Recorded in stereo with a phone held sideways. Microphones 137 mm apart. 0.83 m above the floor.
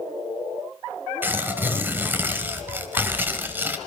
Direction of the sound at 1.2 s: 15° right (ahead or behind).